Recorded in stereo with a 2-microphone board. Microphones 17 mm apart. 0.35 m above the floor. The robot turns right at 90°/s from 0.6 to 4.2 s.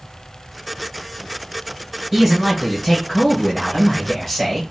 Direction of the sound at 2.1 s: 25° right.